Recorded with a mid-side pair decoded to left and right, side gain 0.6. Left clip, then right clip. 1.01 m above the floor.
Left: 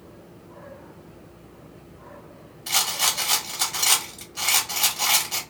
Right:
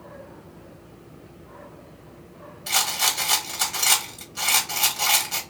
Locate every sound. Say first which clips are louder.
2.7 s a rattle: even; 5° right, 1.3 m